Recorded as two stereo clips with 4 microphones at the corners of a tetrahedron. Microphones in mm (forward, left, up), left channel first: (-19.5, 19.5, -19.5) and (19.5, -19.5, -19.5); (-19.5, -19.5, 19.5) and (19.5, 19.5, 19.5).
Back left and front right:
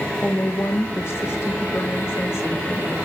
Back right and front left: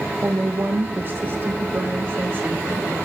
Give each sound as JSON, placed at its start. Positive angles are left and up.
{"t": 0.2, "sound": "a woman speaking", "azimuth_deg": 95, "distance_m": 2.5}